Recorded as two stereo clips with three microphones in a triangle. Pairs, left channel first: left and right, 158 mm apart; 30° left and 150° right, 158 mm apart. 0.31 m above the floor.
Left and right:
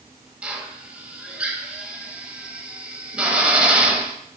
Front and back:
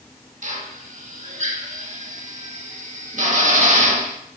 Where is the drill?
170° right, 0.6 m.